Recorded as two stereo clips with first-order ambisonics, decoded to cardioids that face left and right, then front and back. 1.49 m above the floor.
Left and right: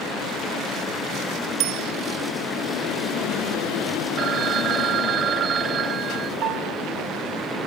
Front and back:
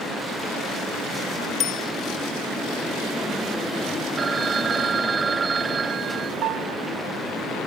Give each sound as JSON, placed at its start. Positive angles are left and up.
{"t": 1.6, "sound": "a bicycle bell", "azimuth_deg": -60}
{"t": 4.2, "sound": "a phone ringing", "azimuth_deg": -120}
{"t": 6.4, "sound": "a piano", "azimuth_deg": -135}